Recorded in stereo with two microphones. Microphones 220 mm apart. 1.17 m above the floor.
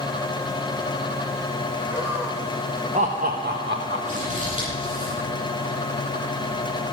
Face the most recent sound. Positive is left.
turn(degrees=-35)  # may be behind; listen again after turning